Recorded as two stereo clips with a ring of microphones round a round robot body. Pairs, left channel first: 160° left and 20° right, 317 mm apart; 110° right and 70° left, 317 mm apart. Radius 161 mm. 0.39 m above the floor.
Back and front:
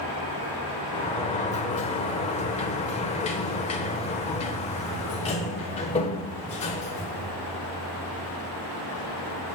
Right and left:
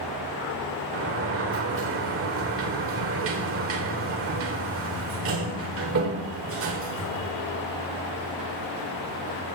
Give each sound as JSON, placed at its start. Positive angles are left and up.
{"t": 0.9, "sound": "a sliding door", "azimuth_deg": 95, "distance_m": 1.2}